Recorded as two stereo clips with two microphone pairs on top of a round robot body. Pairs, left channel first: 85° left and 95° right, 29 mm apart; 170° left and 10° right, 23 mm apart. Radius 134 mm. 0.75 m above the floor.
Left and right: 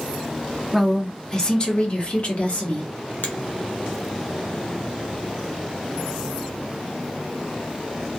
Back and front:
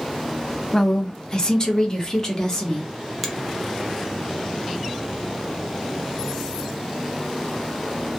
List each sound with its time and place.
0.7 s a woman speaking: 165° right, 0.9 m; by 2.9 s 110° left, 1.3 m
3.2 s a finger snap: 90° left, 0.7 m